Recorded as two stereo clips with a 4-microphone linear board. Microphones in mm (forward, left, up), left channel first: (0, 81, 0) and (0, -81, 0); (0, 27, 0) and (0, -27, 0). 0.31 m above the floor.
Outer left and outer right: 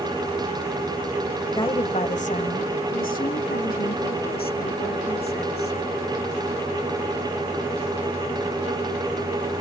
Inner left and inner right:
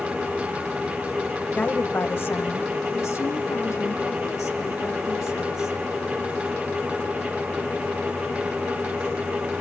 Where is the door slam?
I don't hear a door slam.